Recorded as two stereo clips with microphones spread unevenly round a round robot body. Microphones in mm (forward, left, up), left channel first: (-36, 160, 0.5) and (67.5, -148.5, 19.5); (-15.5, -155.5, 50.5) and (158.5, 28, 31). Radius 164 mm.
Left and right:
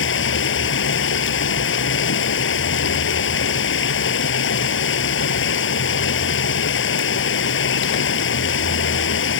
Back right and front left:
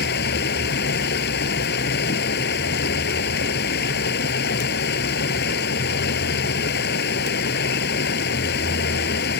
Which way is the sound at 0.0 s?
165° left.